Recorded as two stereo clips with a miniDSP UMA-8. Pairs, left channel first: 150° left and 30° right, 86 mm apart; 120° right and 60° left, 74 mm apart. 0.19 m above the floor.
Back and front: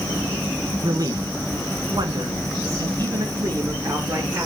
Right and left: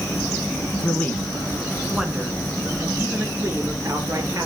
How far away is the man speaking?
About 2 m.